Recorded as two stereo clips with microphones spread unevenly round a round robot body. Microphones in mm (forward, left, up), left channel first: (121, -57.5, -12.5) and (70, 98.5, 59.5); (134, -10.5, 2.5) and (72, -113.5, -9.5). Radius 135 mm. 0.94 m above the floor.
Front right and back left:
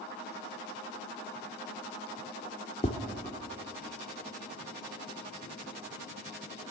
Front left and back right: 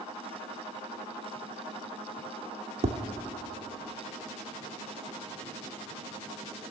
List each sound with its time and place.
2.8 s tapping: 150° right, 0.6 m